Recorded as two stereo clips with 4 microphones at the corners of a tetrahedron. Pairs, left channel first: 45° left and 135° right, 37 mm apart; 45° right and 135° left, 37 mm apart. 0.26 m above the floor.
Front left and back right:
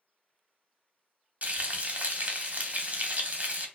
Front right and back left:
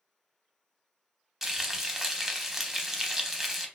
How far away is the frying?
About 0.6 m.